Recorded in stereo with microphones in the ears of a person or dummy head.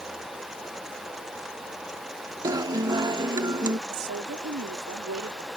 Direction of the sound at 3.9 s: 65° right (ahead or behind).